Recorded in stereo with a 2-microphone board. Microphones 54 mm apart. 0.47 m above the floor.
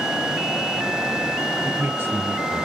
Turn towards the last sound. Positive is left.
turn(degrees=-35)  # may be behind; listen again after turning